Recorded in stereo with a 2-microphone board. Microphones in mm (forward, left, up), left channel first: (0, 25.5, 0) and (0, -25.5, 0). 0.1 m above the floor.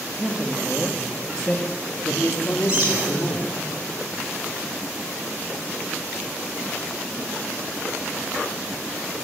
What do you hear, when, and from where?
0.2 s a man speaking: 10° right (ahead or behind), 2.5 m; by 3.5 s 65° left (ahead or behind), 2.5 m
2.7 s a bird: 15° right (ahead or behind), 7 m